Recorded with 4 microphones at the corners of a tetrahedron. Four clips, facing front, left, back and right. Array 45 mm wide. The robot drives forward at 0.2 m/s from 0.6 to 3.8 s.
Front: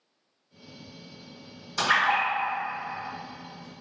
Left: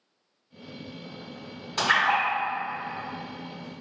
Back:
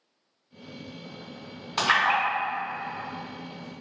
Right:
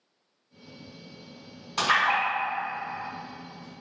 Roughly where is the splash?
Behind.